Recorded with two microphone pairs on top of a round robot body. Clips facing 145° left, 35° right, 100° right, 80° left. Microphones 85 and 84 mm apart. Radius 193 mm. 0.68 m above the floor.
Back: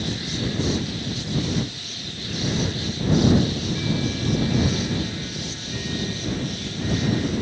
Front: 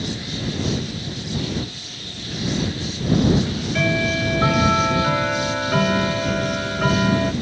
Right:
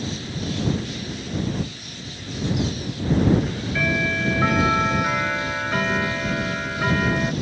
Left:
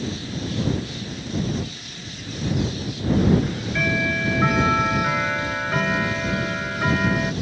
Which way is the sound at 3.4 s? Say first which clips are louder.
Front 3 dB, even; 10° right.